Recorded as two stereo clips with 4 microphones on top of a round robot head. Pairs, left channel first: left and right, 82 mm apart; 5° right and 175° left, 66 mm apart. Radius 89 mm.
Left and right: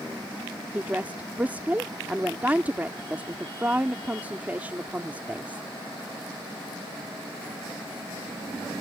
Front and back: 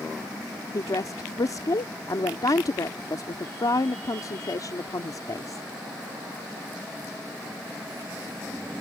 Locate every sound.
0.7 s a woman speaking: 20° right